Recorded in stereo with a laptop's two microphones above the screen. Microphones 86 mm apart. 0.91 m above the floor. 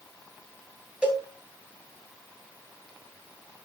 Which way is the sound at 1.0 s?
15° right (ahead or behind).